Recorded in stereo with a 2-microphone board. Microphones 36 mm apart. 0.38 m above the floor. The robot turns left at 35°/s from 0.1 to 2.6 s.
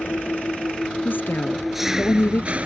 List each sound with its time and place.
0.0 s an engine running: 55° left; by 2.7 s 35° right
1.1 s a woman speaking: 130° left; by 2.6 s 75° left